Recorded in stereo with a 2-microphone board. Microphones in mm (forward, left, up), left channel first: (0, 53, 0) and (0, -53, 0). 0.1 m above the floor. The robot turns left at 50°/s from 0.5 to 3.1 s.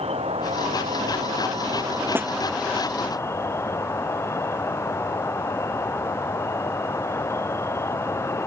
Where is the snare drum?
20° right (ahead or behind); by 2.3 s 15° right (ahead or behind).